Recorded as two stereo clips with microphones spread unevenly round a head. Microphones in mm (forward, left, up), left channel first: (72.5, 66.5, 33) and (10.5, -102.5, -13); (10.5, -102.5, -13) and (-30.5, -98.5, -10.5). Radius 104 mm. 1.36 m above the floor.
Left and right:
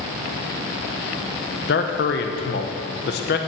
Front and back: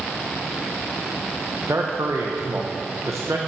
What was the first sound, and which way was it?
A man speaking, 115° left.